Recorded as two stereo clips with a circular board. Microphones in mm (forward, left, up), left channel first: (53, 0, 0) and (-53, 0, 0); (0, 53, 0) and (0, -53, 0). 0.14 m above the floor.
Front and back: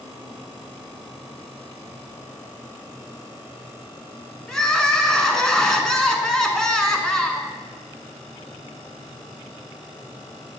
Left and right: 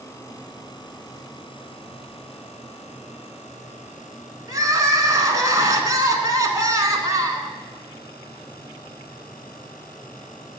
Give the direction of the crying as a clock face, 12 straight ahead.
3 o'clock.